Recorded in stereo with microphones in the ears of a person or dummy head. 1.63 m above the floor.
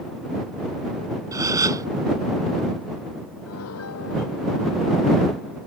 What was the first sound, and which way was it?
A gasp, 20° right (ahead or behind).